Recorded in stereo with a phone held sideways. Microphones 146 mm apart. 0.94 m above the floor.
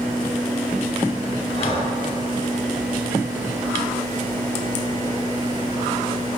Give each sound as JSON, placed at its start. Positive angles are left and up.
{"t": 1.6, "sound": "breathing", "side_deg": 40, "distance_m": 5.0}